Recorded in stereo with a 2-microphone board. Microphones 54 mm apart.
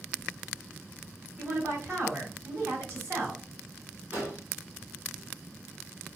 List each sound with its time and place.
1.4 s a woman speaking: 40° right (ahead or behind), 2 m
4.1 s an explosion: 40° right (ahead or behind), 2 m